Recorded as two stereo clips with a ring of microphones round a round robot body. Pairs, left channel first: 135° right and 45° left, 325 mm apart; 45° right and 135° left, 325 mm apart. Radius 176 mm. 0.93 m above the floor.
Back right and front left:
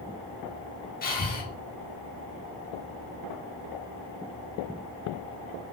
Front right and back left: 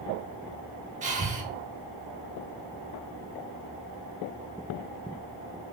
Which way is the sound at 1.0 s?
175° right.